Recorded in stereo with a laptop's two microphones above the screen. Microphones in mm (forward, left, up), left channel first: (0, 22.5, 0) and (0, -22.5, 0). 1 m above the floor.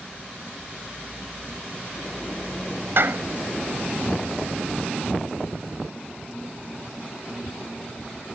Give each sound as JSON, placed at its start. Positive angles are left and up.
{"t": 3.0, "sound": "a clap", "side_deg": -60}